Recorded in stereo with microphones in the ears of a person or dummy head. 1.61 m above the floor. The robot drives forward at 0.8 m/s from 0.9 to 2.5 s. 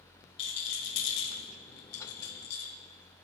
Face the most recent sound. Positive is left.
turn(degrees=75)  # may be behind; listen again after turning